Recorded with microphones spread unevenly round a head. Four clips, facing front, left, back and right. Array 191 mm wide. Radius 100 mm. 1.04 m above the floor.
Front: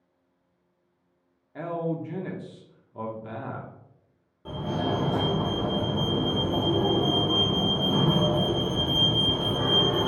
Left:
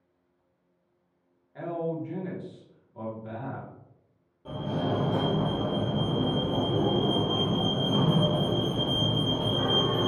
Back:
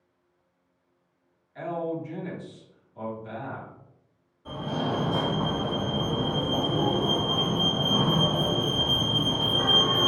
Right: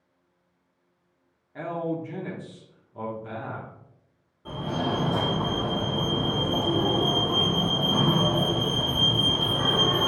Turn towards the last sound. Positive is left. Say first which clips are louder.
# right 1 dB, front 1 dB
turn(degrees=5)